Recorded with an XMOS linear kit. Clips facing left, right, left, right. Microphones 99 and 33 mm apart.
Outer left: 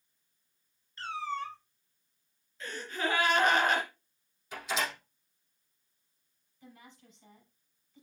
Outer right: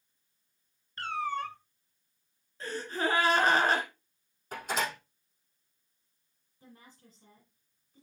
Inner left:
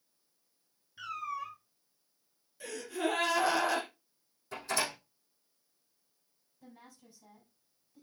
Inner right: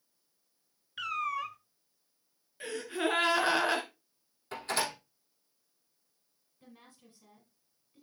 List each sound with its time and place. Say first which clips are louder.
1.0 s a cat meowing: outer right 3 dB, inner right 5 dB; 60° right (ahead or behind), 0.6 m
2.6 s a gasp: outer right 3 dB, inner right 2 dB; 35° right (ahead or behind), 1.8 m
4.5 s a door slam: outer right 1 dB, inner right 1 dB; 45° right (ahead or behind), 4.5 m
6.6 s a woman speaking: outer left 1 dB, inner left 1 dB; 40° right (ahead or behind), 4.5 m